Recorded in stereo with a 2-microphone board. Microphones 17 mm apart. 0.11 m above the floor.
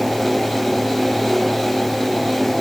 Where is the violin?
No violin in this recording.